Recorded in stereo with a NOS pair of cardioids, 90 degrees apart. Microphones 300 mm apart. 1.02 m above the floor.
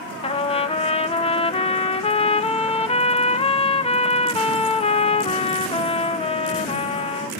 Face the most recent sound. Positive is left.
turn(degrees=20)